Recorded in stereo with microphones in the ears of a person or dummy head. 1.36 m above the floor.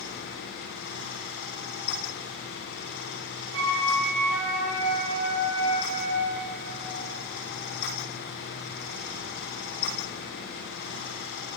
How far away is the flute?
About 3 m.